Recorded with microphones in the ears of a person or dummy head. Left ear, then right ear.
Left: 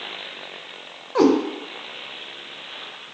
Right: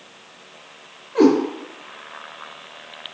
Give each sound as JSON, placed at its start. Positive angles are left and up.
{"t": 1.1, "sound": "a cat meowing", "side_deg": 55, "distance_m": 0.8}